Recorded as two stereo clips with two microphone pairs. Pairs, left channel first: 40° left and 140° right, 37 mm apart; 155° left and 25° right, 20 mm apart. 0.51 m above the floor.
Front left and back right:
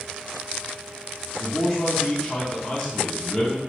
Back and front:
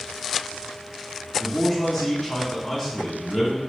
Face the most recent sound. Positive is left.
turn(degrees=105)